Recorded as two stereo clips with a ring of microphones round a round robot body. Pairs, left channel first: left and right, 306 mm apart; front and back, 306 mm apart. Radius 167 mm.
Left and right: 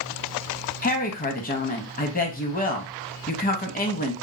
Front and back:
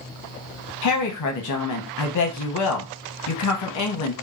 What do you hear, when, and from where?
0.8 s a woman speaking: 30° left, 0.8 m